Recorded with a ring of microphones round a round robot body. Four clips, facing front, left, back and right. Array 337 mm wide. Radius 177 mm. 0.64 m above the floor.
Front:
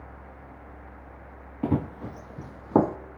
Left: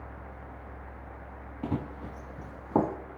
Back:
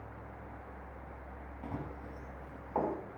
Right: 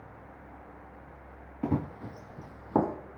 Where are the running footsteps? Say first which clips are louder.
Right 3 dB, front 15 dB; 15° right, 1.1 m; by 3.0 s straight ahead, 2 m.